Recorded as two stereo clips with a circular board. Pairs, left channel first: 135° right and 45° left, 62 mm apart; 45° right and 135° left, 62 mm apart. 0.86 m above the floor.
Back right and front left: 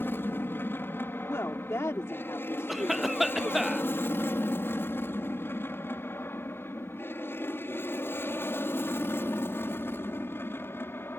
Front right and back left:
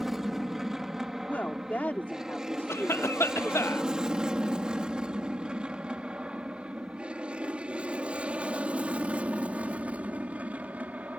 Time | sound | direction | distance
0.0 | an aircraft | 145° right | ?
1.2 | a woman speaking | 105° right | ?
2.7 | a cough | 40° right | ?